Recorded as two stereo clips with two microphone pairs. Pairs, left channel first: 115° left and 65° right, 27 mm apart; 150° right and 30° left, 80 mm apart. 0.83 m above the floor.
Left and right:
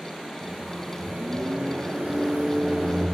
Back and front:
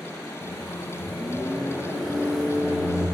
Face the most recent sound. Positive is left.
turn(degrees=-60)